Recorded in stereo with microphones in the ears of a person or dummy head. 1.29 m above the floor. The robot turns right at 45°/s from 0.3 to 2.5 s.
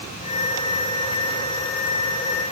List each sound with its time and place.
Only background noise.